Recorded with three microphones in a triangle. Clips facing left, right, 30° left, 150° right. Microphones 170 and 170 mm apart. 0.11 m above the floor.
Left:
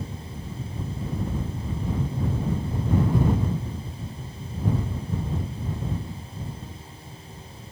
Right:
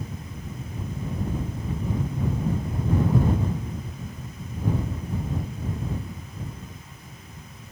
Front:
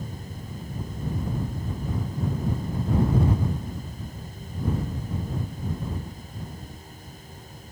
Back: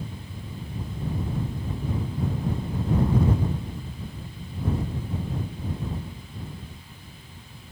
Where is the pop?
I don't hear a pop.